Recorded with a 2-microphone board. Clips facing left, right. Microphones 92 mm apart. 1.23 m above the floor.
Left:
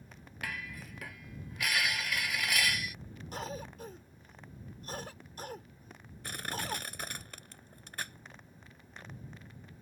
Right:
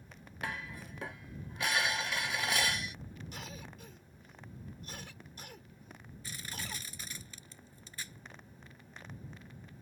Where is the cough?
45° left (ahead or behind).